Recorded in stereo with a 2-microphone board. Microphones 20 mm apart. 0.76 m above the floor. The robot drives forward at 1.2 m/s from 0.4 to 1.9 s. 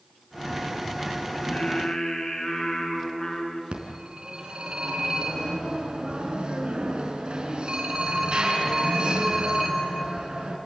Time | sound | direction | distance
1.4 | singing | 55° left (ahead or behind) | 4.5 m
3.7 | a phone ringing | 55° right (ahead or behind) | 4.5 m